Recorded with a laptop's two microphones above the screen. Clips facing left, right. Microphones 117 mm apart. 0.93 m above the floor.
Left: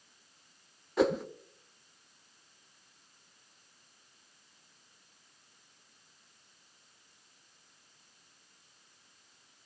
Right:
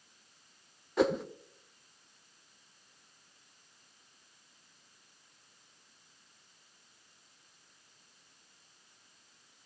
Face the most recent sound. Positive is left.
turn(degrees=0)  # may be behind; listen again after turning